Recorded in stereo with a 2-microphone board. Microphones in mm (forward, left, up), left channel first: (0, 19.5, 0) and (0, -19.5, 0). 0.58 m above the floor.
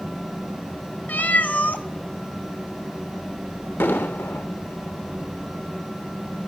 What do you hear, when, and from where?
1.1 s a cat meowing: 45° left (ahead or behind), 0.6 m
3.8 s an explosion: 70° left (ahead or behind), 0.9 m